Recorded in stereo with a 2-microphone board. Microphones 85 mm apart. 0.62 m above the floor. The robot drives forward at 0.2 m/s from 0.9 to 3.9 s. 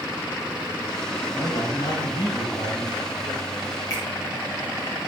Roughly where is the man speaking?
Left.